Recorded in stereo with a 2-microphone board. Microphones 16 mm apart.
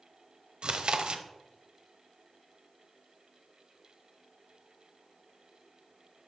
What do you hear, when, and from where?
0.6 s chewing: 60° right (ahead or behind), 0.6 m